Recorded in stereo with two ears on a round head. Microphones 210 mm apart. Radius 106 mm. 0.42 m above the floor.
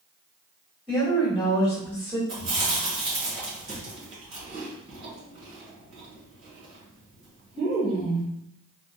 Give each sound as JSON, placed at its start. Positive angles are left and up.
{"t": 0.9, "sound": "a woman speaking", "side_deg": 5, "distance_m": 1.4}
{"t": 2.3, "sound": "chewing", "side_deg": -55, "distance_m": 1.7}